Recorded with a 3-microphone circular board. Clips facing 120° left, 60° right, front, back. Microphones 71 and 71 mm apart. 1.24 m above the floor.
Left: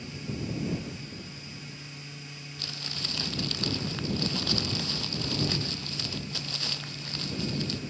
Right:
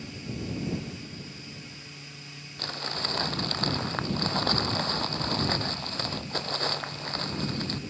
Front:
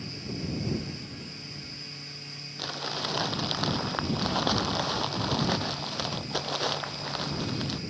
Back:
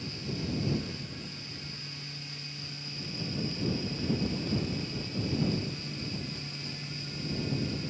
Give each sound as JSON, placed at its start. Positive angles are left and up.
{"t": 2.6, "sound": "crumpling", "azimuth_deg": -10}